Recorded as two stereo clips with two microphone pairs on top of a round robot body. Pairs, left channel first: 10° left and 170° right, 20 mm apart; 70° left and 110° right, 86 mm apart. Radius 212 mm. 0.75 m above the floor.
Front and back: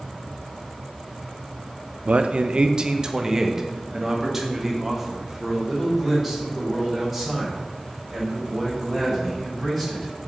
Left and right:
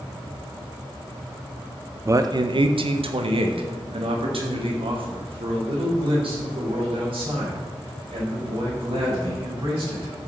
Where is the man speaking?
170° right, 0.6 m; by 10.1 s 80° right, 5.5 m.